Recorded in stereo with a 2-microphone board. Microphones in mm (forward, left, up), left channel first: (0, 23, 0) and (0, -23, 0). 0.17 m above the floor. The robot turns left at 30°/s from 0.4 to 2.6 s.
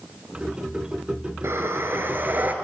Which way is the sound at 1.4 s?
105° right.